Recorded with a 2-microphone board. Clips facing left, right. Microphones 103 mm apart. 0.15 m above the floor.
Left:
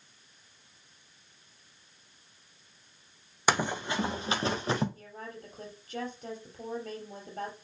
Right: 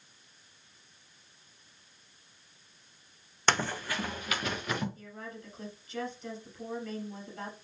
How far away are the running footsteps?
About 0.6 m.